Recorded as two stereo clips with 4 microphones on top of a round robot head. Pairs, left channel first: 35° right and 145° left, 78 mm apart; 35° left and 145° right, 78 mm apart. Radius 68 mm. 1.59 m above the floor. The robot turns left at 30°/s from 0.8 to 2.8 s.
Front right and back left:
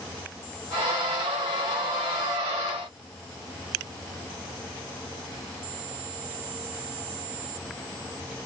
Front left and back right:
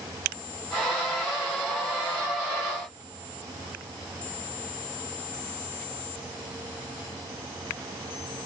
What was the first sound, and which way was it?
Only background noise.